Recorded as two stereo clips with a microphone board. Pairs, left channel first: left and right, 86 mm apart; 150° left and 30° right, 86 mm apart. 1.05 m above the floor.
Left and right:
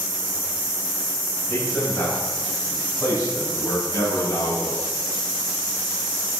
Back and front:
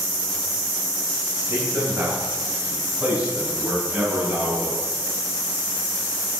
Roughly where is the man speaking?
Ahead left.